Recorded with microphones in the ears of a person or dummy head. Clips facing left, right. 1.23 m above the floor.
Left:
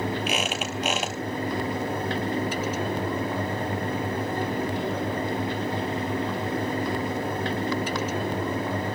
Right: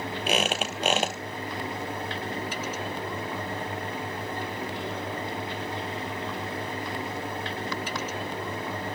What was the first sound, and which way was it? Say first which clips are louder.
A squeak: right 1 dB; 30° right (ahead or behind).